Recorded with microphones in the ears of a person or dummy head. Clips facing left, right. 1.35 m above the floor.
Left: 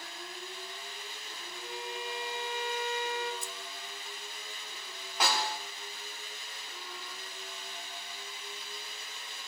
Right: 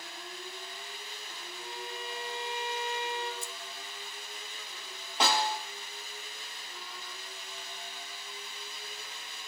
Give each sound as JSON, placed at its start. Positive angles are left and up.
{"t": 1.6, "sound": "a violin", "side_deg": 25, "distance_m": 6.0}
{"t": 3.4, "sound": "keys jangling", "side_deg": 15, "distance_m": 0.5}
{"t": 5.2, "sound": "a snare drum", "side_deg": -25, "distance_m": 3.0}